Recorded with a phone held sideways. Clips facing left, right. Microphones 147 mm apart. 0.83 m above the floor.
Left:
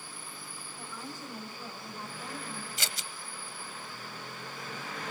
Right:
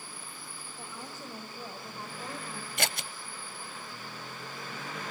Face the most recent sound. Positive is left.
turn(degrees=-60)  # may be behind; listen again after turning